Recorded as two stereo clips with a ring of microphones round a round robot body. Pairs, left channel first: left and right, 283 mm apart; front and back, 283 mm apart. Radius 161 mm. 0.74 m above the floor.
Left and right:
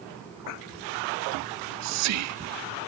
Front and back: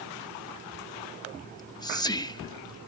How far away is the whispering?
About 1.9 m.